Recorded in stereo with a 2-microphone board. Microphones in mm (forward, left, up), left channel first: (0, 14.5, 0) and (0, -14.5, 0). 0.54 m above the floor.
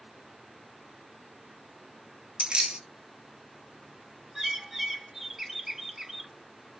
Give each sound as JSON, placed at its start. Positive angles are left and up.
{"t": 2.4, "sound": "keys jangling", "side_deg": -35, "distance_m": 0.7}
{"t": 4.3, "sound": "a bird", "side_deg": -15, "distance_m": 0.7}